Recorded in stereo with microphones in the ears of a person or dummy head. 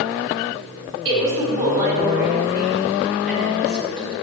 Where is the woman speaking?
25° right (ahead or behind), 5 m; by 4.1 s centre (ahead or behind), 8.5 m.